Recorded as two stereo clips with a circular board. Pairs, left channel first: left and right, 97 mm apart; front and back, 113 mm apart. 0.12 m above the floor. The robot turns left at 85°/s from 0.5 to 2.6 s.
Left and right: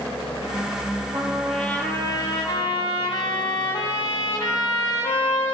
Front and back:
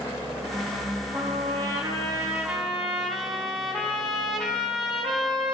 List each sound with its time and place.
1.1 s a trumpet: 140° right, 3.5 m; by 5.5 s 95° left, 3.5 m